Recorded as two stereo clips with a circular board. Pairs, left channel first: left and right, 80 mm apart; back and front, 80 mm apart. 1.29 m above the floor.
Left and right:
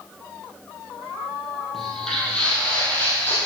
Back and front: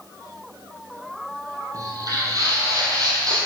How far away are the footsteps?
About 1.7 m.